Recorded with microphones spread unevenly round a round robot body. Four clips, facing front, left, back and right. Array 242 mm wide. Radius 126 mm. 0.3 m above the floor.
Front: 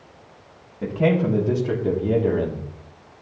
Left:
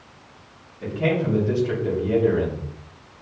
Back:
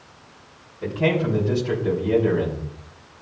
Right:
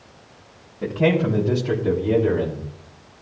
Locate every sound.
0.8 s a man speaking: 30° right, 3.5 m; by 2.7 s 5° right, 3 m